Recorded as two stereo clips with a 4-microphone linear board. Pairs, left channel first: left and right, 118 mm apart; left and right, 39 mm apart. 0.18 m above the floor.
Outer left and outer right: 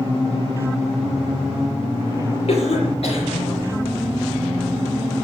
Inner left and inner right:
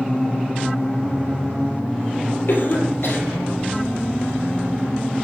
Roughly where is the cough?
Left.